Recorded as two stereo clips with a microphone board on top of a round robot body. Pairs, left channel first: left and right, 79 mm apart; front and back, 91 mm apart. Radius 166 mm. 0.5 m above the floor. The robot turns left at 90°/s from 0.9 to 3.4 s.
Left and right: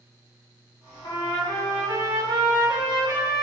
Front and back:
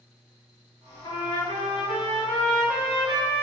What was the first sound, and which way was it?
A trumpet, 50° left.